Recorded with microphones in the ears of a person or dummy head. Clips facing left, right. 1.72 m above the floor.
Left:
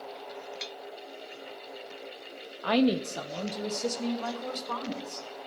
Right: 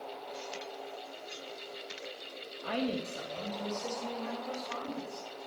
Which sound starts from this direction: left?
A woman speaking, at 2.6 s.